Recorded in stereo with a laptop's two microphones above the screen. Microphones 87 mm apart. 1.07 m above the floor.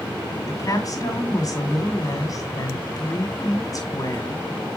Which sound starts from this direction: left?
A woman speaking, at 0.5 s.